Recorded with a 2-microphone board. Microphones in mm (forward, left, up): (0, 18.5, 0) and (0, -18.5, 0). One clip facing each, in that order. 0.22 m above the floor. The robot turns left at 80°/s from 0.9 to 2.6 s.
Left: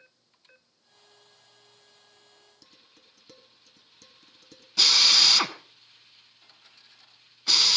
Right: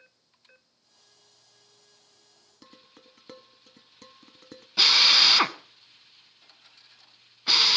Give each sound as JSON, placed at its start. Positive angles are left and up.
{"t": 2.6, "sound": "dishes clattering", "side_deg": -40, "distance_m": 1.0}
{"t": 4.8, "sound": "a drill", "side_deg": -20, "distance_m": 0.7}